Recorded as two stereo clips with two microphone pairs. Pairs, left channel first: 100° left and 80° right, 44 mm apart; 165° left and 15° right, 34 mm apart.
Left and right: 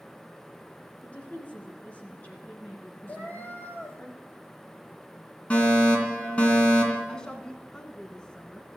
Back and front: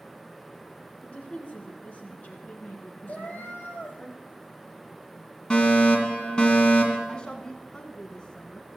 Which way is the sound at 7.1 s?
145° left.